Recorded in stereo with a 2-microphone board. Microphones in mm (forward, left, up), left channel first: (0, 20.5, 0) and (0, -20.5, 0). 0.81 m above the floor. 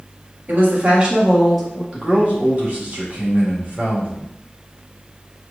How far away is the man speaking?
About 1.7 m.